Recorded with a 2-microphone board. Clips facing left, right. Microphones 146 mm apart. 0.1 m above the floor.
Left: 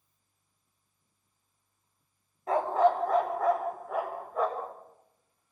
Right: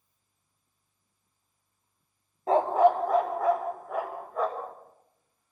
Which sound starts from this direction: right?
A dog barking, at 2.5 s.